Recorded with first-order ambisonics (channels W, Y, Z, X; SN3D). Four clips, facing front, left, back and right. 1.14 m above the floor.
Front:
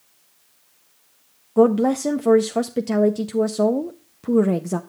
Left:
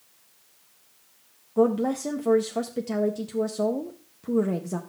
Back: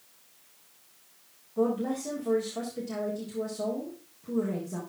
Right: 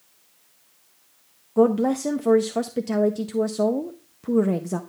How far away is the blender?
No blender in this recording.